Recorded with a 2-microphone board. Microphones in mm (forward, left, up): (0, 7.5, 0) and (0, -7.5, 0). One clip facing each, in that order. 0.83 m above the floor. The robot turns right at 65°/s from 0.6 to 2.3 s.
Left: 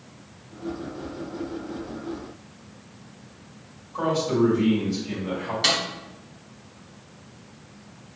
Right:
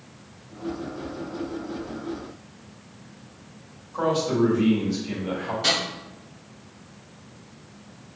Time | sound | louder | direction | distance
3.9 | a man speaking | even | 25° right (ahead or behind) | 2.0 m
5.6 | a snare drum | left 1 dB | 30° left (ahead or behind) | 1.4 m